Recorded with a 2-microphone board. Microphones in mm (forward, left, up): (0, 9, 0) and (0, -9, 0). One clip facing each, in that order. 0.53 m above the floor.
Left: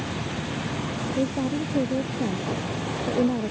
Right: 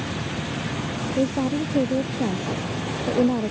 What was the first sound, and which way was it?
A woman speaking, 35° right (ahead or behind).